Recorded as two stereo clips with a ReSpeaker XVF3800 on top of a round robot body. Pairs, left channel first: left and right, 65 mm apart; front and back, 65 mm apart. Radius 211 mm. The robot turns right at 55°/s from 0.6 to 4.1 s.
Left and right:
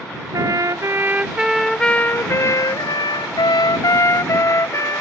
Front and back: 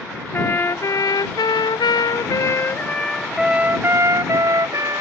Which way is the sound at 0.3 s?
55° right.